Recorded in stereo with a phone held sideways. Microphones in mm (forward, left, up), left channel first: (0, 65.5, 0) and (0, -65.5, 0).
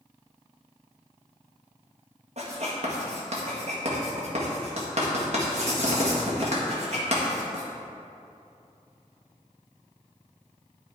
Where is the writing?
55° right (ahead or behind), 1.6 m.